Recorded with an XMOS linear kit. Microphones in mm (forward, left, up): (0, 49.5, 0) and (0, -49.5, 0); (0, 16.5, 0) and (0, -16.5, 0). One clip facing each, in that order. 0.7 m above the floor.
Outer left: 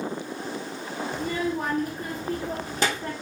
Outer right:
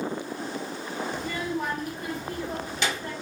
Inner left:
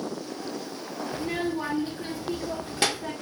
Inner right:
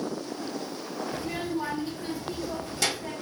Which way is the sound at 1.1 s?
40° left (ahead or behind).